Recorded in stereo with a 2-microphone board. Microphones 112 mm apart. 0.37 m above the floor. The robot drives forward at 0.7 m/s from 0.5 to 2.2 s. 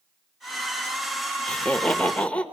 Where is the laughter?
10° left (ahead or behind), 0.8 m.